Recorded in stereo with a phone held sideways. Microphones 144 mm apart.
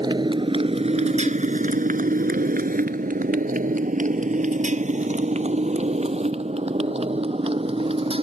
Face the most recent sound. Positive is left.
turn(degrees=-40)  # may be behind; listen again after turning